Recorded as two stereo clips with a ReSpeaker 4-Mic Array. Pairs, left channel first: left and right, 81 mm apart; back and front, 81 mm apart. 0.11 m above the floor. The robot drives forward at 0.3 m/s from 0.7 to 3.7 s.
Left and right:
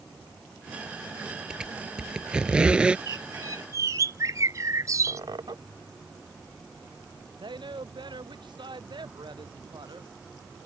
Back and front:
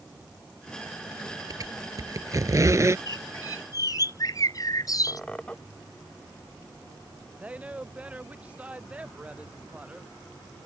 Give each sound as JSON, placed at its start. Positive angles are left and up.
{"t": 1.5, "sound": "a squeak", "azimuth_deg": -15}
{"t": 3.1, "sound": "a bird", "azimuth_deg": -130}
{"t": 5.1, "sound": "a squeak", "azimuth_deg": -105}
{"t": 7.4, "sound": "a woman speaking", "azimuth_deg": -75}